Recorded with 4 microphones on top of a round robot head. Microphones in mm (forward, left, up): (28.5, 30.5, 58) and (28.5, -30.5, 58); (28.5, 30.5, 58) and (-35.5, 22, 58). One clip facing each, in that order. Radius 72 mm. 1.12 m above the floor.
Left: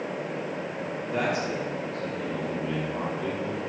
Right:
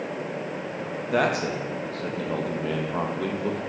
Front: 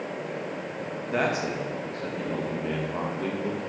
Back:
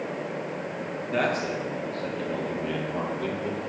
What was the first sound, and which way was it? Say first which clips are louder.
A man speaking: right 4 dB, even; 70° right.